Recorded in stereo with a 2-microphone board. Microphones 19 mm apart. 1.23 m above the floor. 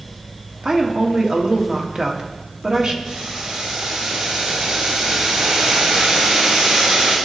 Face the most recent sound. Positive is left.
turn(degrees=-65)  # may be behind; listen again after turning